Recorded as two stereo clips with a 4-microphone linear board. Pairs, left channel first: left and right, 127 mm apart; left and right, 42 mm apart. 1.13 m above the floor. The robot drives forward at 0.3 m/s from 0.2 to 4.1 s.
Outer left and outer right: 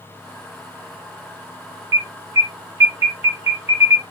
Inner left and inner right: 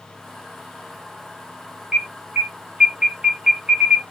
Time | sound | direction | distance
1.9 | an alarm | 25° right (ahead or behind) | 1.7 m